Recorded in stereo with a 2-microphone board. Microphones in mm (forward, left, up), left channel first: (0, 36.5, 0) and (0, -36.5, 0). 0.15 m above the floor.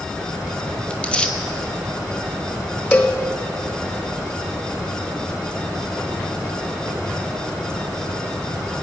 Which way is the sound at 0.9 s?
15° left (ahead or behind).